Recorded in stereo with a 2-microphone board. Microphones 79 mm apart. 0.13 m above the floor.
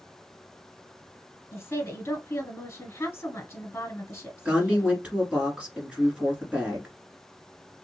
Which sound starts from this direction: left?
A woman speaking, at 1.5 s.